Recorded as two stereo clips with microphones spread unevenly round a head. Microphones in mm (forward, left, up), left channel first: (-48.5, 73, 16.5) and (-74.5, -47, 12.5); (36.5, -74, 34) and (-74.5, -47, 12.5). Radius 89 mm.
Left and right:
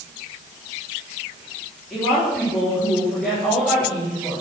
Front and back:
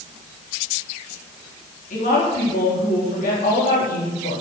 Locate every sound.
1.9 s a woman speaking: 10° right, 4 m